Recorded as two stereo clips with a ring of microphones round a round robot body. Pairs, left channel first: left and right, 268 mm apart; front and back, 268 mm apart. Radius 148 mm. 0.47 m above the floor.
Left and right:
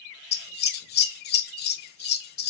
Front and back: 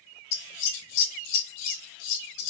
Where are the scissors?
35° left, 0.6 m.